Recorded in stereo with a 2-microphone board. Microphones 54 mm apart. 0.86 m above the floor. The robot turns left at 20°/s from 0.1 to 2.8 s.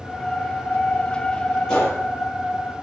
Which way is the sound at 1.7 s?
10° left (ahead or behind).